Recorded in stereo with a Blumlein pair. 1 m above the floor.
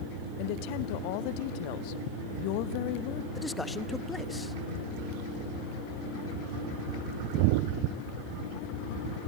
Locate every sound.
0.4 s a woman speaking: 45° left, 0.9 m
3.4 s a man speaking: 5° left, 0.9 m